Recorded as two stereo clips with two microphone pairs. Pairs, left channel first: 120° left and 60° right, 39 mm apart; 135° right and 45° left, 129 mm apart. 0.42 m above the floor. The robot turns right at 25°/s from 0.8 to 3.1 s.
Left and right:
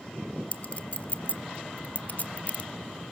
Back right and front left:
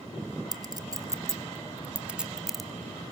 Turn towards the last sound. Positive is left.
turn(degrees=150)